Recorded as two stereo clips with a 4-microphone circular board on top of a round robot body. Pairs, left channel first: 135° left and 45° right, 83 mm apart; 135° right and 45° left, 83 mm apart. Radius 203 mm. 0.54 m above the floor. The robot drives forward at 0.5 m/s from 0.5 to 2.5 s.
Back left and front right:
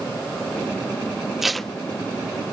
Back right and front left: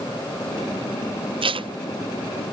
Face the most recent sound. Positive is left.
turn(degrees=100)